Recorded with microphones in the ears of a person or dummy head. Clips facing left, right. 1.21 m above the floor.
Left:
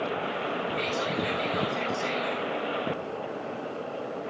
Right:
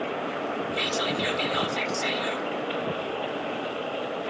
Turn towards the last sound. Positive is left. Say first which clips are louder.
# right 1 dB
turn(degrees=-80)